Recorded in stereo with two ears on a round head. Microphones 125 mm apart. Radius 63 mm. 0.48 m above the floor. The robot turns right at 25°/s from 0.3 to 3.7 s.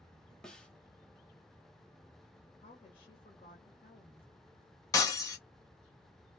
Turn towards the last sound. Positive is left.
turn(degrees=25)  # may be behind; listen again after turning